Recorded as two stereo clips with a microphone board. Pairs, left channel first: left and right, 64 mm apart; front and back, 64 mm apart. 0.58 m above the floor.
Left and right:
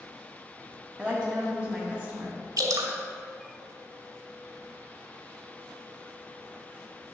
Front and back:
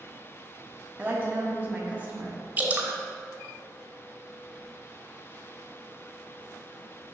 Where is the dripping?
115° right, 1.1 m.